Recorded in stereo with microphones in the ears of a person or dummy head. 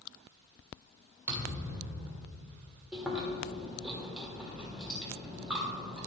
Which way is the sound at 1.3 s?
15° right (ahead or behind).